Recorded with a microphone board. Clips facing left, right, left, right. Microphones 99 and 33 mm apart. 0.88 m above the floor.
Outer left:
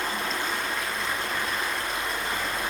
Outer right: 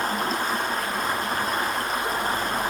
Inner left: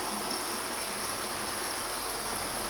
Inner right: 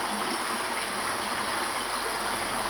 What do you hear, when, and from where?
0.0 s running water: 40° right (ahead or behind), 5.5 m